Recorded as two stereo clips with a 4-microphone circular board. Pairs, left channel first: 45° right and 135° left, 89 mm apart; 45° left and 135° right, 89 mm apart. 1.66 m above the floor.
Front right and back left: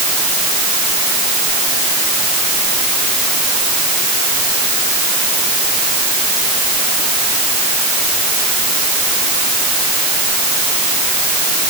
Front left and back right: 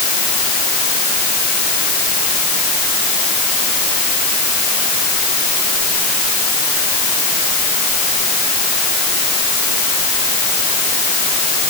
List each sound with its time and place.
Only background noise.